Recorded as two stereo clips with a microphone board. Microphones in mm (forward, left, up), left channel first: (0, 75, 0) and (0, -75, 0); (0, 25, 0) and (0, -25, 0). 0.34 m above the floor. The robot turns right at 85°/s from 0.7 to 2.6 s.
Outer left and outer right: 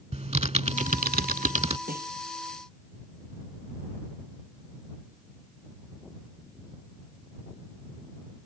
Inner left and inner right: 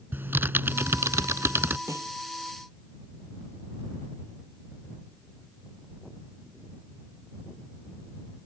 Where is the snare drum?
70° right (ahead or behind); by 2.1 s 85° right.